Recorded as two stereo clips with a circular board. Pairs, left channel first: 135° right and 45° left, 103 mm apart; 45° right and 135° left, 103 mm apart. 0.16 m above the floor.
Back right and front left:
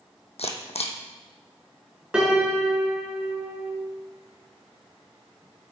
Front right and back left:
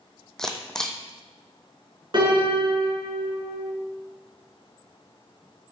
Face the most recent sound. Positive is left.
turn(degrees=125)